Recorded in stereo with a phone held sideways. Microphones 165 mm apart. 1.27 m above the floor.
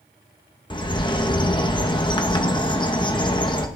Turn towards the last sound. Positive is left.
turn(degrees=25)  # may be behind; listen again after turning